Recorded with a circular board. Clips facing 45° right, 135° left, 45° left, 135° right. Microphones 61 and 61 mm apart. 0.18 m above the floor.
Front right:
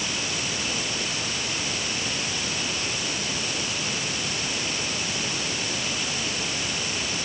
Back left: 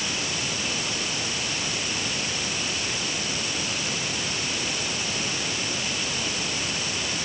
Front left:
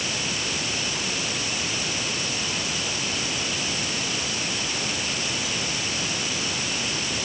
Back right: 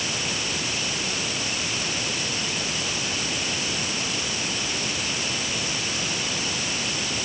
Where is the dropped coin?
No dropped coin in this recording.